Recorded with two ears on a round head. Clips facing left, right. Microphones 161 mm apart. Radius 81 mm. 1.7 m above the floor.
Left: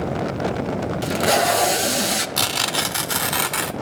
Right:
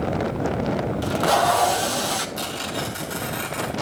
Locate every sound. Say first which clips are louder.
1.0 s tape being pulled: left 1 dB; 25° left (ahead or behind), 0.5 m
2.4 s tearing paper: left 2 dB; 80° left, 0.8 m